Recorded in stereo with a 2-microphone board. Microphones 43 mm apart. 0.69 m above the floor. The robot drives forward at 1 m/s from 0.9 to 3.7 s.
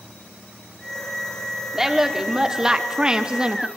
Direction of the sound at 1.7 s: 10° right (ahead or behind).